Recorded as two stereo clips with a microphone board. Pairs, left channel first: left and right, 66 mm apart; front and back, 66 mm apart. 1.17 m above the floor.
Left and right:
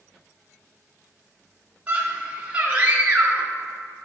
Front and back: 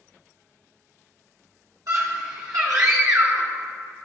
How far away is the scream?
About 1.7 m.